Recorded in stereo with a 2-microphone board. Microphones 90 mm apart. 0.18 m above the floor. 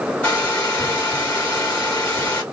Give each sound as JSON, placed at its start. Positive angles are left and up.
{"t": 0.2, "sound": "a hair dryer", "side_deg": 15, "distance_m": 1.8}